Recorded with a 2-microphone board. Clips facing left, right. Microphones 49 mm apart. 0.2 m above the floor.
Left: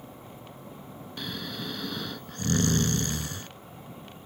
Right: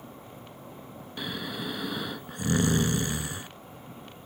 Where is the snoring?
15° right (ahead or behind).